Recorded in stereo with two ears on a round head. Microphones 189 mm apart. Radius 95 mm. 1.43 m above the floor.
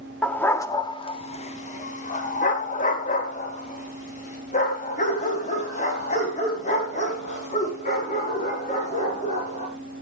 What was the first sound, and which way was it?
A dog barking, 5° left (ahead or behind).